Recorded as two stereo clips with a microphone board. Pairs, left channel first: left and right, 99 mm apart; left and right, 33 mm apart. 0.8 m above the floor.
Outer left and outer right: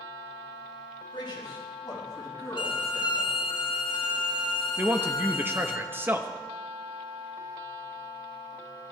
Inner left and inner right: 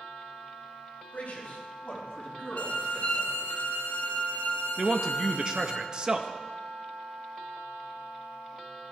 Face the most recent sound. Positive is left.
turn(degrees=-20)  # may be behind; listen again after turning